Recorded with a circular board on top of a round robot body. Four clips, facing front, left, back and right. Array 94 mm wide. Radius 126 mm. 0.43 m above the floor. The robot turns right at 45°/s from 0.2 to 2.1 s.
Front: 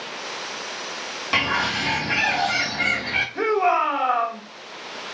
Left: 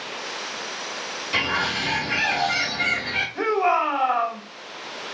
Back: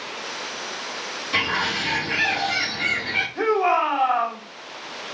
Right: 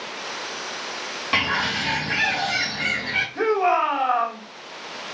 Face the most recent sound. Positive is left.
turn(degrees=-10)